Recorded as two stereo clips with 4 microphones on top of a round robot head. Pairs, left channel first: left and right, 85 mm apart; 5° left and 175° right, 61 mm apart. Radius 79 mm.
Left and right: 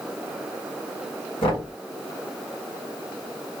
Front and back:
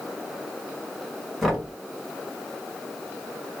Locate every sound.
1.4 s knocking: 95° left, 1.8 m